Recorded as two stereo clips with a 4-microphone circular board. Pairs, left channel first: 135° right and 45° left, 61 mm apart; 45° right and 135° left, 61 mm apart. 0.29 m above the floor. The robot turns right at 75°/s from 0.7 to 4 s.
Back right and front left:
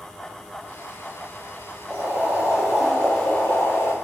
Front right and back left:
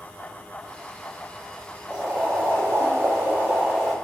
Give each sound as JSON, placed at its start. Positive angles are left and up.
{"t": 1.9, "sound": "boiling", "azimuth_deg": 70, "distance_m": 0.8}